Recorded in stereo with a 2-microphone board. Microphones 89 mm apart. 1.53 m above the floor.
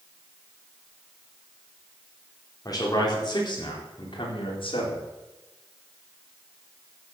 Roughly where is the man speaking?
Left.